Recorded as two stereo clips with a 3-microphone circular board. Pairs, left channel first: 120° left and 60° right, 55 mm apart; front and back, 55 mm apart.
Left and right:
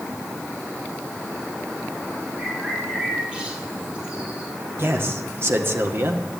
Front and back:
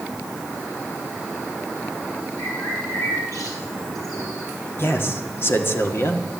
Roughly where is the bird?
Ahead.